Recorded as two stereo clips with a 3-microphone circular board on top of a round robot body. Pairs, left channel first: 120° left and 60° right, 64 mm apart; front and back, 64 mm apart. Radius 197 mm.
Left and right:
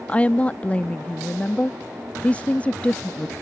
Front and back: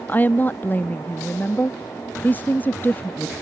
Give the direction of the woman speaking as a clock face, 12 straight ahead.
10 o'clock.